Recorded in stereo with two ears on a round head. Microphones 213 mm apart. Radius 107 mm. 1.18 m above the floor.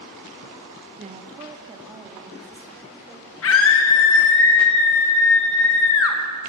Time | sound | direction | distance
1.0 | a woman speaking | 30° right (ahead or behind) | 1.2 m
3.4 | a scream | 60° left (ahead or behind) | 1.1 m